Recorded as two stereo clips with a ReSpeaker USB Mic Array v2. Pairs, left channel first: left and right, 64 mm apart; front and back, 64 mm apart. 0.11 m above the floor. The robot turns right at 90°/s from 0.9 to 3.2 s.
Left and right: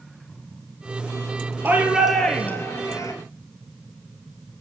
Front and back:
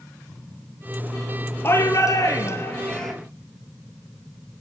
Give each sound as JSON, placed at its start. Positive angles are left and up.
{"t": 1.6, "sound": "a shout", "azimuth_deg": -45, "distance_m": 2.0}